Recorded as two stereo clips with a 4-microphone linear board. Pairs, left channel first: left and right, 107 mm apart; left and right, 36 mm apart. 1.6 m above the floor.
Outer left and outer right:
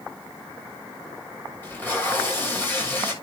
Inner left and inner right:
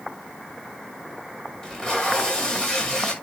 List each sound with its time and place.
1.6 s tape being pulled: 20° left (ahead or behind), 6 m